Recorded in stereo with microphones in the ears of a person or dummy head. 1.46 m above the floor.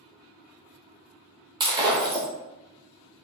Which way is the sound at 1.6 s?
20° right (ahead or behind).